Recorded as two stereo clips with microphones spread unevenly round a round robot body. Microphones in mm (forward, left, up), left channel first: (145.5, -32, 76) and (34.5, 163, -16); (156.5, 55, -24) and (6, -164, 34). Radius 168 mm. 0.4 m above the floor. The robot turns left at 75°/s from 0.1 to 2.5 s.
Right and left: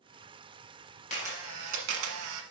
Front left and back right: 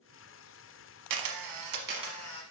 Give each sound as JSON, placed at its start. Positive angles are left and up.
{"t": 1.1, "sound": "a camera shutter", "azimuth_deg": -130, "distance_m": 1.1}